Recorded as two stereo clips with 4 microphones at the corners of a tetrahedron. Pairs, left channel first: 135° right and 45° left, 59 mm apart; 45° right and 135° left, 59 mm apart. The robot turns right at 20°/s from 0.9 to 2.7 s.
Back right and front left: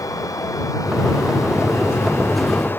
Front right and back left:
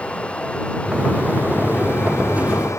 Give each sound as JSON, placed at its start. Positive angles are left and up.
{"t": 0.0, "sound": "running water", "azimuth_deg": -115}